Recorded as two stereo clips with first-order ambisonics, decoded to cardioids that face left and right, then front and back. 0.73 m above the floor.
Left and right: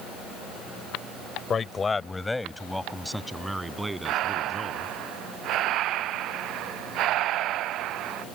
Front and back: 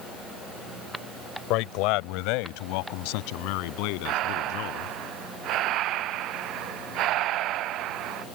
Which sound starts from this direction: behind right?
Breathing, at 4.0 s.